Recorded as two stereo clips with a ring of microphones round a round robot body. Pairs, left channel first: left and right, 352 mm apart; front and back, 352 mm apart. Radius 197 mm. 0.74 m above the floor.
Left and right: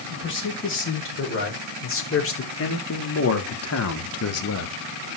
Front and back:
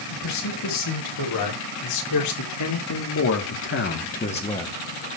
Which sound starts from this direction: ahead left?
A man speaking, at 0.1 s.